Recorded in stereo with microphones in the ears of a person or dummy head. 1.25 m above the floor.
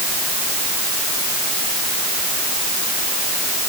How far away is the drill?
I don't hear a drill.